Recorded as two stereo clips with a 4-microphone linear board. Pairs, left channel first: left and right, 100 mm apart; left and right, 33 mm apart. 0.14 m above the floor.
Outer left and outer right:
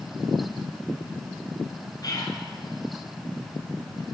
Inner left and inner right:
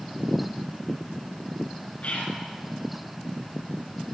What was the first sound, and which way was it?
Whispering, 45° left (ahead or behind).